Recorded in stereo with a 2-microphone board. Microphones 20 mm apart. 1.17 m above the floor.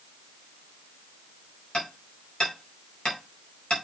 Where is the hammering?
45° left (ahead or behind), 4.5 m.